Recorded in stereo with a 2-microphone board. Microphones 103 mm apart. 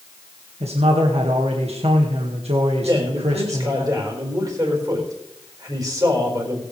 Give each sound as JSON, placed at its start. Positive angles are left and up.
{"t": 0.6, "sound": "a man speaking", "side_deg": -80, "distance_m": 1.9}
{"t": 2.9, "sound": "a man speaking", "side_deg": -35, "distance_m": 4.5}